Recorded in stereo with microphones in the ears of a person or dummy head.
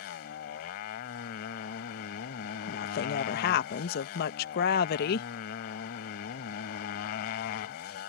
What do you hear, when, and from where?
0.0 s a motorcycle: 55° left (ahead or behind)
2.7 s a woman speaking: 55° left (ahead or behind)